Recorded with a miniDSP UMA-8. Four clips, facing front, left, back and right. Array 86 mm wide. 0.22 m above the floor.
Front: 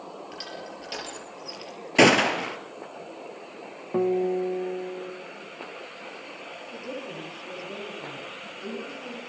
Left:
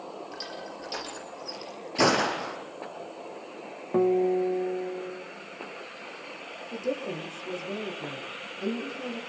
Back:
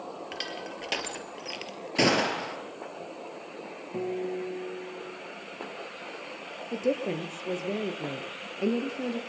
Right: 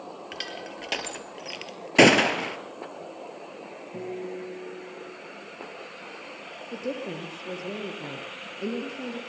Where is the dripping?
I don't hear dripping.